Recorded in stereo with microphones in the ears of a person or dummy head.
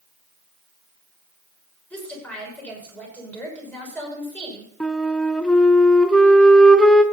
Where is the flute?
5° left (ahead or behind), 1.0 m.